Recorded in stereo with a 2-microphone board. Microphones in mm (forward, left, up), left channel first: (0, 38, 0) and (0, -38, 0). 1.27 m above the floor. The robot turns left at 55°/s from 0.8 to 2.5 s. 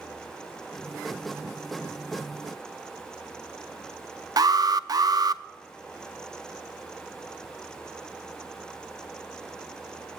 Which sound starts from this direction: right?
An alarm, at 4.4 s.